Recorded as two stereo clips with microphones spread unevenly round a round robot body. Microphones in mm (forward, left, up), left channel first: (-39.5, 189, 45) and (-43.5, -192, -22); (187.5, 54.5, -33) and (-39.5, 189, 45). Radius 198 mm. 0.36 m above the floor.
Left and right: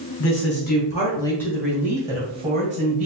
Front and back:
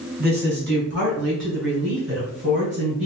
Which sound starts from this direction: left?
A woman speaking, at 0.2 s.